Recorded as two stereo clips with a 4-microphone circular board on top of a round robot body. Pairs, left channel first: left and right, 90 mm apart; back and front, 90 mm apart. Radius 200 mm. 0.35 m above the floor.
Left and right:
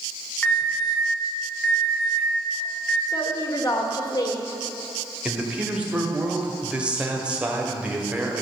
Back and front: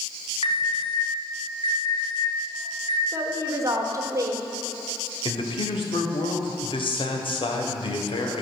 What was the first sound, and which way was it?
An alarm, 165° left.